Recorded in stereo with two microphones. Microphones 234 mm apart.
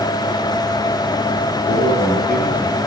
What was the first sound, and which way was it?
A man speaking, 45° left (ahead or behind).